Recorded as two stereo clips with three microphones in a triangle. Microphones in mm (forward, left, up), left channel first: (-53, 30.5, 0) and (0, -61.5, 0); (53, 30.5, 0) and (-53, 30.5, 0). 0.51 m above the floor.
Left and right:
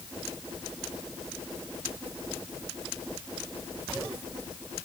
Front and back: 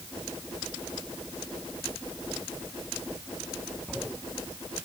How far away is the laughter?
No laughter in this recording.